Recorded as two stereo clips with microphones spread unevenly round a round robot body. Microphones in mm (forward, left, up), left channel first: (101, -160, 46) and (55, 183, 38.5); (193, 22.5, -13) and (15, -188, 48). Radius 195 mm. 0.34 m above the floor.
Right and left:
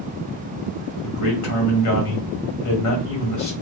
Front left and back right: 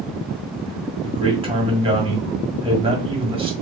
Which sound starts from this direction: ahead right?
A man speaking, at 1.0 s.